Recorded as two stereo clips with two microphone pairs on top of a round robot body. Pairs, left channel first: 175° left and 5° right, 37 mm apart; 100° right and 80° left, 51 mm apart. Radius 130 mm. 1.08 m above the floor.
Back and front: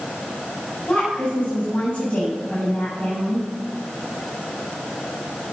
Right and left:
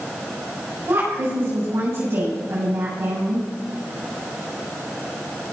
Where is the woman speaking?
110° left, 7 m.